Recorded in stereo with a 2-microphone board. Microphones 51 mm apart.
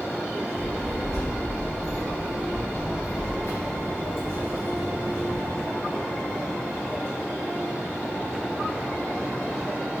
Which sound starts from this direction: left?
A child speaking, at 0.6 s.